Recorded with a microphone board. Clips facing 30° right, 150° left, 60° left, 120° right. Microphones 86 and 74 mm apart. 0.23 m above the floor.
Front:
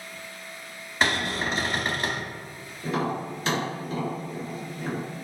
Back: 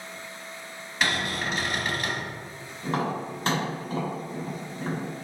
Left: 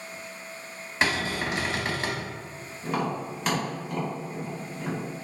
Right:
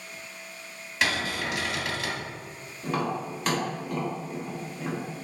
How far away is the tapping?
About 1.7 m.